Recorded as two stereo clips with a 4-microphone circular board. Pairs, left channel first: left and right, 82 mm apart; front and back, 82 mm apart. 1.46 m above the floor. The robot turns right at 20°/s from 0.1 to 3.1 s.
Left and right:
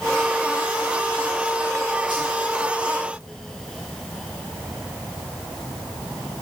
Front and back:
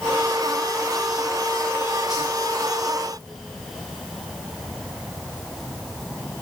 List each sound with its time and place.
2.1 s a whoosh: 100° right, 4.5 m; by 2.3 s 95° right, 4.5 m